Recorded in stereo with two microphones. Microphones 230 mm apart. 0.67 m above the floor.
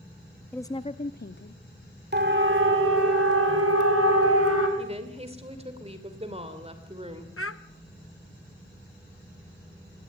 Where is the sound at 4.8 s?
25° right (ahead or behind), 2.5 m.